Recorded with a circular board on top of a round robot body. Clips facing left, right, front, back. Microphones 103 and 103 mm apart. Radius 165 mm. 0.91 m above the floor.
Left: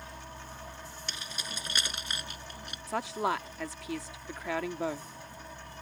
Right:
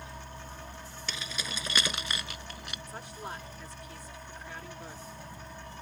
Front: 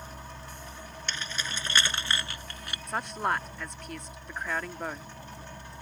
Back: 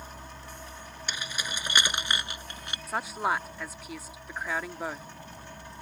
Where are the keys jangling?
100° right; by 2.8 s 110° right.